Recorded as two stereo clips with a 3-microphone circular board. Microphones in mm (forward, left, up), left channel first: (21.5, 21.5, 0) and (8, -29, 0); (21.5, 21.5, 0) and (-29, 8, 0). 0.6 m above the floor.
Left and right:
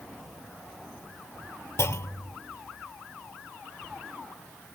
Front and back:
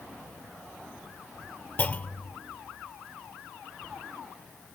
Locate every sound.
1.8 s a clunk: 70° left